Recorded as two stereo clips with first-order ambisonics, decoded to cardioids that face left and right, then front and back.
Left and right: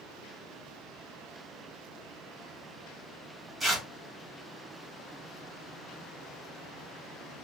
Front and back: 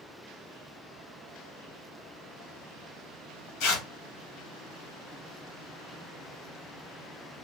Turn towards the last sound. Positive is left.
turn(degrees=-15)